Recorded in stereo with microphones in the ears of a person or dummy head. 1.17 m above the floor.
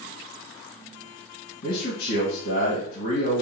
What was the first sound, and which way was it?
A man speaking, 50° left (ahead or behind).